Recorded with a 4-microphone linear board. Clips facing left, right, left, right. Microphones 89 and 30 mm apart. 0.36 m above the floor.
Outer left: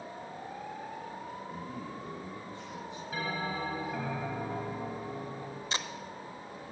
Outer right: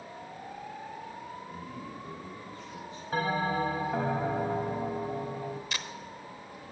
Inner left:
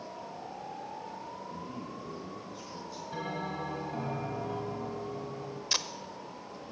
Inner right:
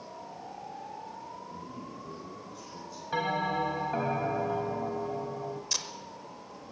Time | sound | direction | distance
1.5 | a man speaking | 35° left (ahead or behind) | 3 m
3.1 | a bell | 50° right (ahead or behind) | 1.4 m
5.7 | tape being pulled | 30° left (ahead or behind) | 0.8 m